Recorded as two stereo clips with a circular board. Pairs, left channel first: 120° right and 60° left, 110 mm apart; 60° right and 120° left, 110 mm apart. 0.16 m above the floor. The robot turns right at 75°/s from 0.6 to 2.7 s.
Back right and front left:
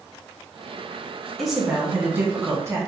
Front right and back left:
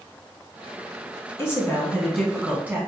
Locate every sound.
1.4 s a woman speaking: 35° right, 1.2 m; by 2.8 s 65° left, 1.2 m